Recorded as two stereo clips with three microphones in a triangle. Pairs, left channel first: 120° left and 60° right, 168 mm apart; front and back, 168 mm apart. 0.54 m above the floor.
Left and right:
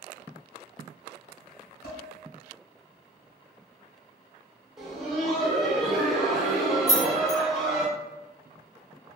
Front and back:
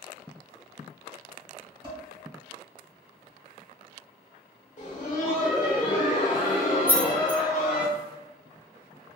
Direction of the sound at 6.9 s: 105° left.